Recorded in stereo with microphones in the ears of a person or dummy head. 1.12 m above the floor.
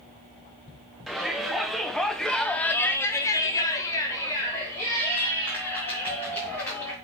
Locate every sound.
1.1 s a shout: 5° right (ahead or behind), 1.6 m; by 6.9 s 15° left (ahead or behind), 2.5 m